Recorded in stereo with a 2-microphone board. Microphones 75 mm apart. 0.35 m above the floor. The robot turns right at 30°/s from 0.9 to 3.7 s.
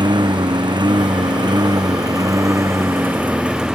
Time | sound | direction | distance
0.0 | a lawn mower | 90° right | ?